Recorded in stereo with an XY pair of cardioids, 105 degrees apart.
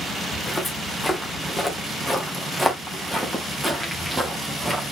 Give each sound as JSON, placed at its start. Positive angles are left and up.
{"t": 0.3, "sound": "footsteps", "azimuth_deg": 10, "distance_m": 5.0}